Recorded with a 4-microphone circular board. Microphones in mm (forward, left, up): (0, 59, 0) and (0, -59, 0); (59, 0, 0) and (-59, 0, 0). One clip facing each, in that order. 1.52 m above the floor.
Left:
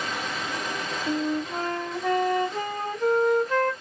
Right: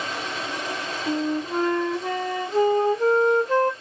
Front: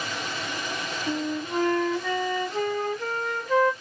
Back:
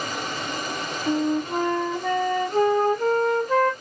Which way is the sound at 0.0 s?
145° right.